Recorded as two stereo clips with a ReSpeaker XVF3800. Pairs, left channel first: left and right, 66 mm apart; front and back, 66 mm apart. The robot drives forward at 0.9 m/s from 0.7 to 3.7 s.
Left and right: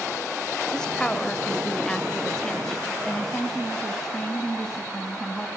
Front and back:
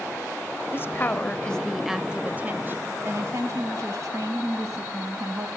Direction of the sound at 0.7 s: 15° left.